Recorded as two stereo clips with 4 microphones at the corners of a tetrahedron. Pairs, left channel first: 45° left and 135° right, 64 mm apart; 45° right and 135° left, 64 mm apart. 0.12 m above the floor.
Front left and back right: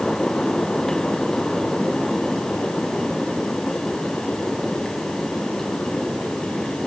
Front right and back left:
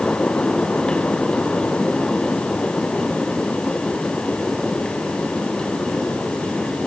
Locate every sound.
Only background noise.